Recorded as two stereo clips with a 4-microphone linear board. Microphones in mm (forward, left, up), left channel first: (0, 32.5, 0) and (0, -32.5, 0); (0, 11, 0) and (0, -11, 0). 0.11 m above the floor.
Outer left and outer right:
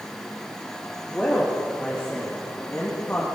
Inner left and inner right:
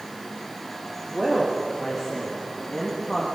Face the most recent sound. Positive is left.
turn(degrees=25)  # may be behind; listen again after turning